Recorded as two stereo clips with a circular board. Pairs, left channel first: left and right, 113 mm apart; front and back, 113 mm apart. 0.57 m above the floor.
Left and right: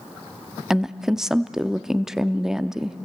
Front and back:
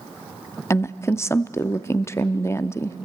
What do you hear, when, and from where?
0.7 s a woman speaking: 10° right, 0.6 m